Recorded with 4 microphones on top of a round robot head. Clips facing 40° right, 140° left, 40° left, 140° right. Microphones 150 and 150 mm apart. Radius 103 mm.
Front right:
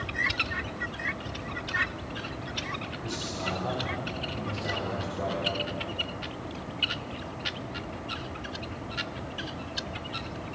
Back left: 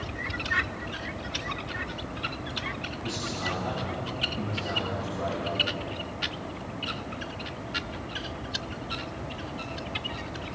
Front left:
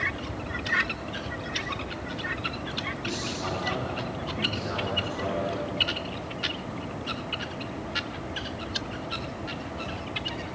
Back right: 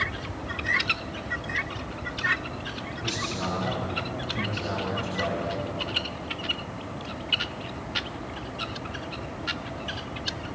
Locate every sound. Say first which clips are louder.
3.0 s a man speaking: back left 2 dB, back right 2 dB; 110° right, 6 m; by 5.5 s 100° right, 7.5 m